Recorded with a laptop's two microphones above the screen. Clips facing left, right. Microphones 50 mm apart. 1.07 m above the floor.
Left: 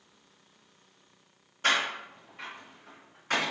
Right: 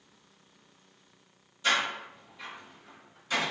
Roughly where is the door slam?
Left.